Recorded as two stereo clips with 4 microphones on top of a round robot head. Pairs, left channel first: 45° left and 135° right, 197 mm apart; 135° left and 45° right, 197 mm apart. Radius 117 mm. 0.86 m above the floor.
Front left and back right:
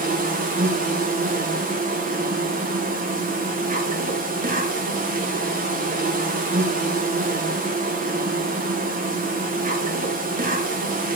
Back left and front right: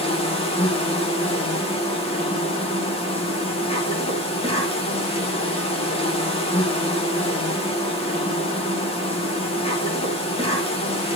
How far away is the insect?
About 2.5 m.